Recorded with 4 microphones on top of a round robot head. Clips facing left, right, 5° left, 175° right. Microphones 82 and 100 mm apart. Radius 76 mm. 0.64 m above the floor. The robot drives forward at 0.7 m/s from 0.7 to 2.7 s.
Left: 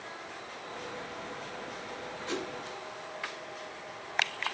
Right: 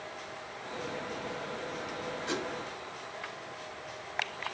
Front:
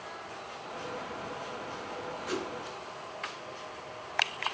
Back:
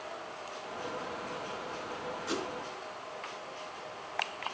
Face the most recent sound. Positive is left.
turn(degrees=-150)